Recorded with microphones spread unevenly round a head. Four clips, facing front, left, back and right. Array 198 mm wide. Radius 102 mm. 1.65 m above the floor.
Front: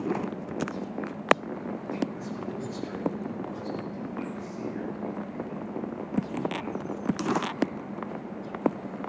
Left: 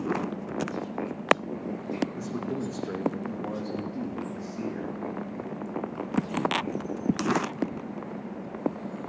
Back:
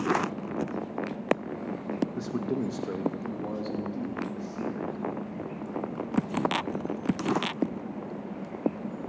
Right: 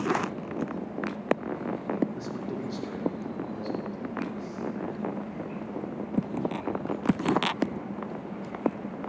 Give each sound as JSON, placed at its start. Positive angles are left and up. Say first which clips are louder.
{"t": 2.1, "sound": "a man speaking", "louder": "left 2 dB, back 5 dB", "azimuth_deg": 170, "distance_m": 2.5}